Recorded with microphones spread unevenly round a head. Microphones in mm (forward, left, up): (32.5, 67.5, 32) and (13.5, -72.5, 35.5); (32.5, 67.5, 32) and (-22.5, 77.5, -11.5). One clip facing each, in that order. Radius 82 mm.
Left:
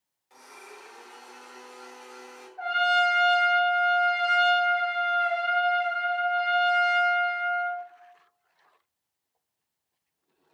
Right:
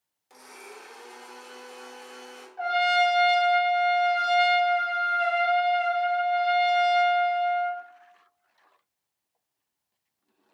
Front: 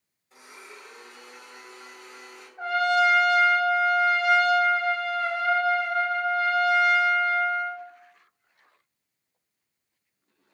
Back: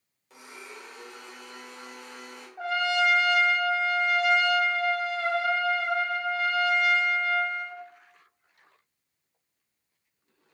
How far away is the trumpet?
About 1.2 m.